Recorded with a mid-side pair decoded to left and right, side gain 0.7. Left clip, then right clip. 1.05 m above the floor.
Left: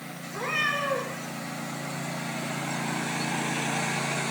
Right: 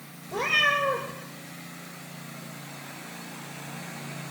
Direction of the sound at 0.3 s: 60° right.